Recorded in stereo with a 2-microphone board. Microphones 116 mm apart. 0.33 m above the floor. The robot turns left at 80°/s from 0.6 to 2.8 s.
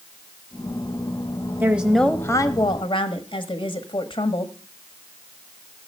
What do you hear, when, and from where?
1.6 s a woman speaking: 155° right, 1.4 m; by 4.5 s 110° left, 1.4 m